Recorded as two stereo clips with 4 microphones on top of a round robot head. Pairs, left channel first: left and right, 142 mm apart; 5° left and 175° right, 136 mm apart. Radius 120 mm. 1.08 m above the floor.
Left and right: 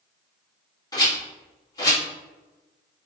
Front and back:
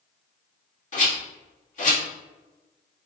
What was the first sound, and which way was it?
A rattle, 25° left.